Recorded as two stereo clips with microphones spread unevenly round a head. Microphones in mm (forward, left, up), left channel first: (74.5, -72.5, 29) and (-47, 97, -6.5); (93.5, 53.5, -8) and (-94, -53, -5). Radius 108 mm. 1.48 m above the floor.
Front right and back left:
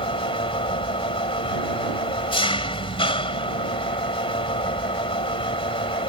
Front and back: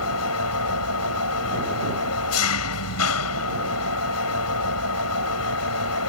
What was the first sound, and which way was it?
An engine running, 10° left.